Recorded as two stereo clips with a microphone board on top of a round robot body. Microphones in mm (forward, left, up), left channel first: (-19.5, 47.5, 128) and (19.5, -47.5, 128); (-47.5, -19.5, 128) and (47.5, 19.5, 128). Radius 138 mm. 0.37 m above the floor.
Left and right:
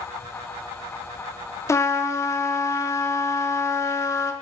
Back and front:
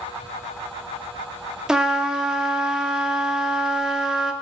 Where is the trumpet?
100° left, 0.9 m.